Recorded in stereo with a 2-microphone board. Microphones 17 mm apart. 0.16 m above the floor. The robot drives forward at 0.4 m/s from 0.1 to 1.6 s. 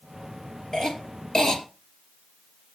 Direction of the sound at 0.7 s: 40° left (ahead or behind).